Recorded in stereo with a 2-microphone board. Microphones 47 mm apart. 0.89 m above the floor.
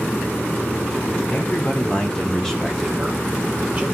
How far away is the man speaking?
About 3 m.